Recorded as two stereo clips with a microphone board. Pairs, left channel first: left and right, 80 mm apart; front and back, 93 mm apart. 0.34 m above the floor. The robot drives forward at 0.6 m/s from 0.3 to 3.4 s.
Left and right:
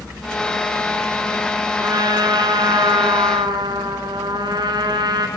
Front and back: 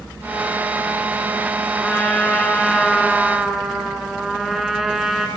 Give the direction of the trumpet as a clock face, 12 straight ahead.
2 o'clock.